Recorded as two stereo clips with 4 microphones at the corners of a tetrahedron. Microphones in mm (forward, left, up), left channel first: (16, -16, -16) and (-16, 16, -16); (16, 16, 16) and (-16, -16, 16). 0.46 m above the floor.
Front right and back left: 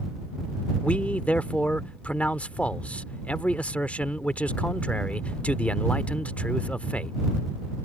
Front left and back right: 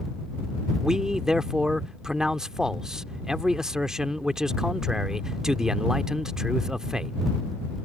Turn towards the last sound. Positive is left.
turn(degrees=-70)